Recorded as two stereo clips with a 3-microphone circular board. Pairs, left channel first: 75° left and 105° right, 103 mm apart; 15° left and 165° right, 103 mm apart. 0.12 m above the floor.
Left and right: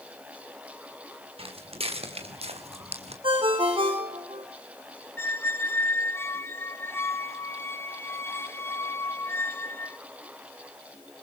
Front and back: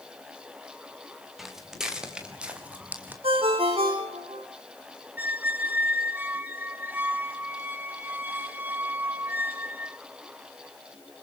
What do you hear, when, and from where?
1.4 s footsteps: 75° right, 4.5 m; by 3.1 s 90° right, 4 m
3.2 s a ringtone: 140° right, 4.5 m
5.2 s a squeak: 130° left, 0.6 m